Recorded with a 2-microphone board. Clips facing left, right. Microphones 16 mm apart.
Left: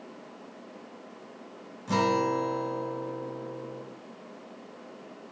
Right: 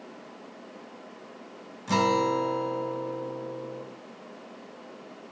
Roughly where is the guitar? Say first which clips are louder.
Right 2 dB; right.